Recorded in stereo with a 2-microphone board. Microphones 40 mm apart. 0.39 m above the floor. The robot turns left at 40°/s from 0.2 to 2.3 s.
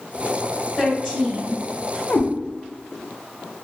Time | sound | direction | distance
0.8 | a woman speaking | 25° left (ahead or behind) | 1.5 m
2.1 | a cat meowing | 45° left (ahead or behind) | 0.5 m